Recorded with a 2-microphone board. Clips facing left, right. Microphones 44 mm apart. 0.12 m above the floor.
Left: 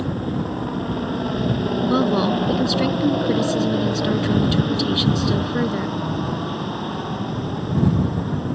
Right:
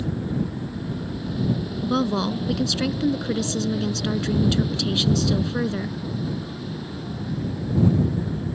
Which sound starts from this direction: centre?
A woman speaking, at 1.8 s.